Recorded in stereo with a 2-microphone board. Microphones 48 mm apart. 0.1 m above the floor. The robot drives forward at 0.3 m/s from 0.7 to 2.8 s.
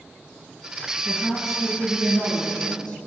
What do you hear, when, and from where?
1.1 s a woman speaking: 5° left (ahead or behind), 1.4 m